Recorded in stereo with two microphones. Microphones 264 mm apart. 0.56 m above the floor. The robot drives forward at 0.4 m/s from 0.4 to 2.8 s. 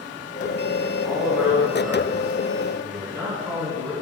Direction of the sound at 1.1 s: Centre (ahead or behind).